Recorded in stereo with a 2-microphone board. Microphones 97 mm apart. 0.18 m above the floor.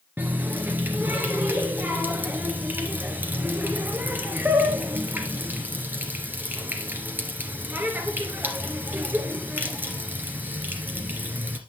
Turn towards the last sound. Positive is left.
turn(degrees=-20)  # may be behind; listen again after turning